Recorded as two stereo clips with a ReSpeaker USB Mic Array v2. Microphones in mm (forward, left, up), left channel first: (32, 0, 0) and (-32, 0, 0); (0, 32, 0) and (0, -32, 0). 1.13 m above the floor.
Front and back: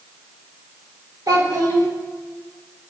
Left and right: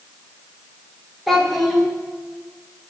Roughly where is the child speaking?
Behind.